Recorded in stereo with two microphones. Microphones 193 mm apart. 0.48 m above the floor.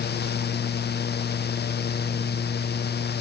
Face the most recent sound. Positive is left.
No sound to turn to.